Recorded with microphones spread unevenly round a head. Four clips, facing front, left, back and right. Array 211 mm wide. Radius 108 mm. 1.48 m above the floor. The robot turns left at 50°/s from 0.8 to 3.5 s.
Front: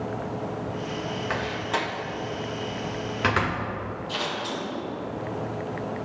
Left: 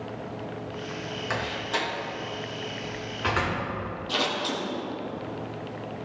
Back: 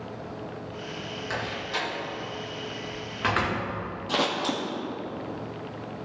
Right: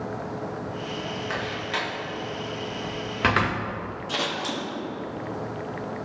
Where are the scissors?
170° right, 2 m.